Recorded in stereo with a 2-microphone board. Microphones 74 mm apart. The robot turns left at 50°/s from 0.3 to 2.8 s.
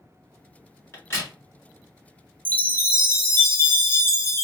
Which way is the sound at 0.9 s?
30° left (ahead or behind).